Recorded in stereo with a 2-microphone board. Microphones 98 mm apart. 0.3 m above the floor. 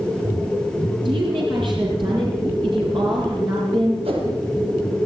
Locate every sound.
1.1 s a woman speaking: 55° right (ahead or behind), 9.5 m
4.0 s a whoosh: 70° right (ahead or behind), 6.5 m